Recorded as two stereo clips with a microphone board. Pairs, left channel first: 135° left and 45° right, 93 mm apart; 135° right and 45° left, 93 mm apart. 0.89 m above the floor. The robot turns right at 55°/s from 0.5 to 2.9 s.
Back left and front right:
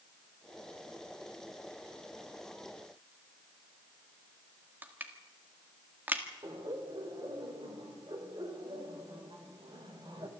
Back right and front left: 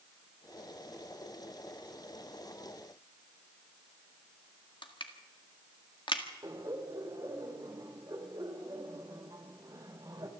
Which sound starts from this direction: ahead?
Laughter, at 6.4 s.